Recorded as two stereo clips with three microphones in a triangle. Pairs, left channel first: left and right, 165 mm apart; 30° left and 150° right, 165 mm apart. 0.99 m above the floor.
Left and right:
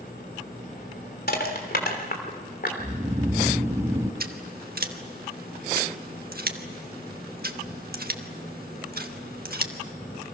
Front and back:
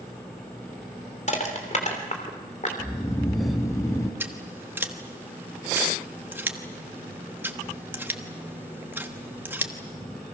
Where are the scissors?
70° right, 1.4 m.